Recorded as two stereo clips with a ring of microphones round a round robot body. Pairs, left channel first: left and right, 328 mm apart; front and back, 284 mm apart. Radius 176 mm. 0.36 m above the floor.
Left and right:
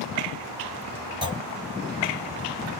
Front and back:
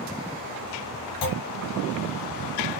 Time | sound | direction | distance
1.2 | a clunk | 15° right | 1.2 m